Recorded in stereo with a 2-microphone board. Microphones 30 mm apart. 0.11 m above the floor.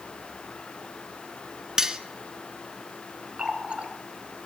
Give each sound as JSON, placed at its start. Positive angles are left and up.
{"t": 1.8, "sound": "cutlery clinking", "side_deg": -20, "distance_m": 0.6}
{"t": 3.4, "sound": "a running tap", "side_deg": -40, "distance_m": 1.1}